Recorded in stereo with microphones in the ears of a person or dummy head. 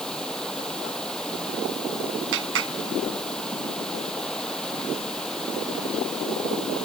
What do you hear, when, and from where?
0.0 s running water: 5° left (ahead or behind)
2.3 s a clap: 80° right